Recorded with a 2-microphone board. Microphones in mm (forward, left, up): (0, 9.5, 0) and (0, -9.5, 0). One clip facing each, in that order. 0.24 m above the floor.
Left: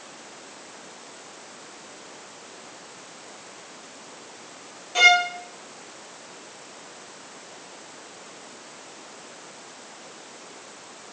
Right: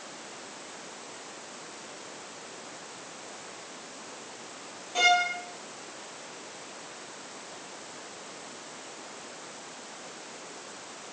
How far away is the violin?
About 1.7 m.